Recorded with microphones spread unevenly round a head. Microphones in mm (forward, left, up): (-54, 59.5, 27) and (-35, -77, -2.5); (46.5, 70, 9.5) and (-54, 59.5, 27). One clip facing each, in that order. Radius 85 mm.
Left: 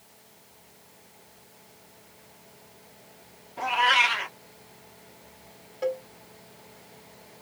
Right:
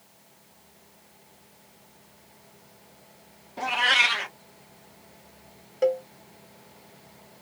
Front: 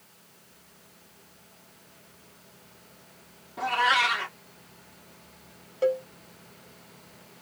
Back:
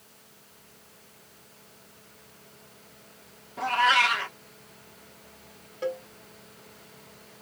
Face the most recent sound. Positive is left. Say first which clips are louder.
# right 6 dB, front 7 dB
turn(degrees=-50)